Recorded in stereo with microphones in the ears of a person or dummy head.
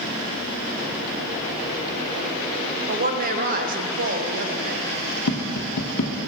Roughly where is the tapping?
Left.